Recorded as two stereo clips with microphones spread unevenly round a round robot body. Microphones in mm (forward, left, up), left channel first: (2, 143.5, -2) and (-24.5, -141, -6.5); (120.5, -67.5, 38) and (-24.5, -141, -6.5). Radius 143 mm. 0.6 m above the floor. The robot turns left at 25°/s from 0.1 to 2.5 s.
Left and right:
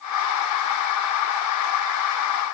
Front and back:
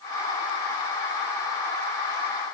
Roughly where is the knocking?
I don't hear knocking.